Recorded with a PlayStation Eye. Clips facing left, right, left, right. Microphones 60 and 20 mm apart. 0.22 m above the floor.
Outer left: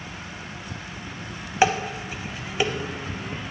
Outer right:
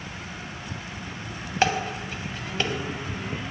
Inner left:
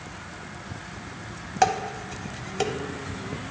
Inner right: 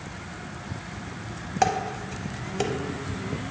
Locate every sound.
1.6 s dishes clattering: 15° left (ahead or behind), 0.6 m